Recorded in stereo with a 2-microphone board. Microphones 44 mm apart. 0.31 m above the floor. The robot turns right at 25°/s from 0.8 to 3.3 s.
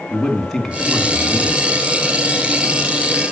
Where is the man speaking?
10° left (ahead or behind), 3 m; by 1.6 s 30° left (ahead or behind), 3 m.